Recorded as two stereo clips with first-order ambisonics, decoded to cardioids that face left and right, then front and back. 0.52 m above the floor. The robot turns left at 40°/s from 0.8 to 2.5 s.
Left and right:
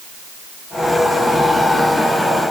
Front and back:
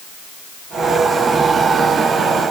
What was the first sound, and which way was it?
Only background noise.